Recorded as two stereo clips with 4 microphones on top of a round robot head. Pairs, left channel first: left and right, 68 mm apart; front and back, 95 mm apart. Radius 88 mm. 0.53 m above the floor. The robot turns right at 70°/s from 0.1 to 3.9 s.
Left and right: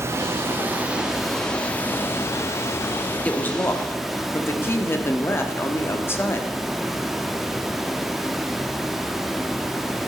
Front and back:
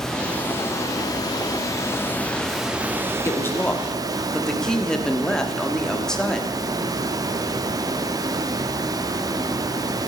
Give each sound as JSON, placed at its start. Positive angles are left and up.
{"t": 0.0, "sound": "running water", "azimuth_deg": -80, "distance_m": 0.8}
{"t": 3.2, "sound": "a woman speaking", "azimuth_deg": 35, "distance_m": 1.3}